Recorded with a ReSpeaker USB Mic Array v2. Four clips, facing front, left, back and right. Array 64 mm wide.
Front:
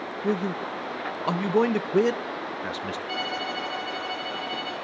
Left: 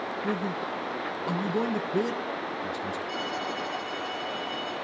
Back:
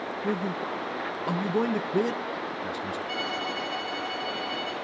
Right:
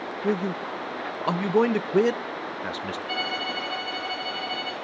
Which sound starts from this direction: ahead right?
A man speaking, at 0.2 s.